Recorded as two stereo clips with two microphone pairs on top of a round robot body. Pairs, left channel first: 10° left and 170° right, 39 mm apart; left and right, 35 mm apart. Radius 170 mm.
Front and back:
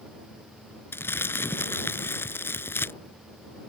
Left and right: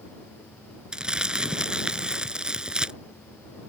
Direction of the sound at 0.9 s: 20° right.